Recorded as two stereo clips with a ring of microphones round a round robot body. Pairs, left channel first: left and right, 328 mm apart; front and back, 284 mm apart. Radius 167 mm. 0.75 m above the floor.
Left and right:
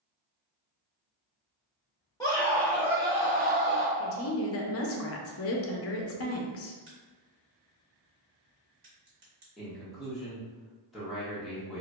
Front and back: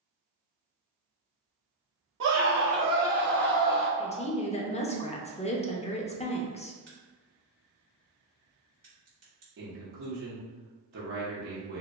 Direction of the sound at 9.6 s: Straight behind.